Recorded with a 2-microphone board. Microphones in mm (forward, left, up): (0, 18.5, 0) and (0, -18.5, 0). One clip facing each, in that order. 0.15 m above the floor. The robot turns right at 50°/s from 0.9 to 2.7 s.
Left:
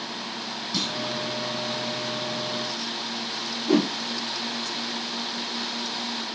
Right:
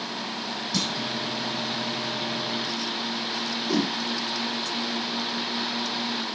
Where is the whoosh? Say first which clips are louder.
Left 5 dB; 45° left (ahead or behind), 3 m.